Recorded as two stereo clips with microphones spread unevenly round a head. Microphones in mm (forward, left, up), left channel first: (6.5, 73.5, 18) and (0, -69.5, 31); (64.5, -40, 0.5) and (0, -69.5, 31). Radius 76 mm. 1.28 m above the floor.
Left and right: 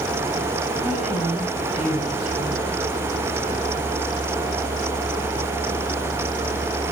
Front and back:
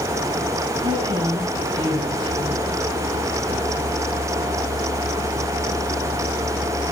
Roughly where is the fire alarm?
No fire alarm in this recording.